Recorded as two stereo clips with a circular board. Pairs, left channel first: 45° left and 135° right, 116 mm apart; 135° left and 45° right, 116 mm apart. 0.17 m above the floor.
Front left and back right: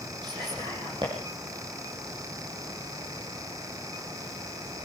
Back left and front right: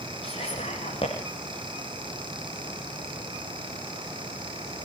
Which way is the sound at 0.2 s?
175° left.